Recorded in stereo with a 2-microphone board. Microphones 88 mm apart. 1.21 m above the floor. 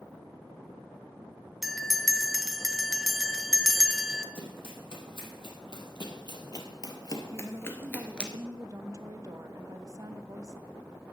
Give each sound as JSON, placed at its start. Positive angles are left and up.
{"t": 1.6, "sound": "a bell", "side_deg": 0, "distance_m": 0.7}
{"t": 4.3, "sound": "running footsteps", "side_deg": 70, "distance_m": 3.5}
{"t": 7.3, "sound": "a woman speaking", "side_deg": -40, "distance_m": 0.8}